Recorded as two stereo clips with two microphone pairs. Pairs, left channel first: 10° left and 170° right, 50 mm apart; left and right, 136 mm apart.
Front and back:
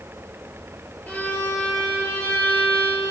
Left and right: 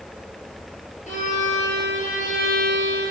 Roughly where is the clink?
No clink in this recording.